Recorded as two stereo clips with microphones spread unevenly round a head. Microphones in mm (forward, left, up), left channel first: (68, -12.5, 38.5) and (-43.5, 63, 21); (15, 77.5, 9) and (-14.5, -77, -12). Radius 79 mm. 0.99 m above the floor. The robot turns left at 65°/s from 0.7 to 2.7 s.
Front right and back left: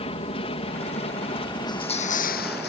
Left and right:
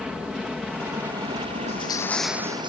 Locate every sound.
0.0 s an aircraft: 15° right; by 2.7 s 145° right
1.7 s crushing: 30° left; by 2.7 s 40° right